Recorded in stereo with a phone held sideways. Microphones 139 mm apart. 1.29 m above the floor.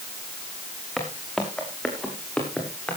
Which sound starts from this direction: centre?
Footsteps, at 1.0 s.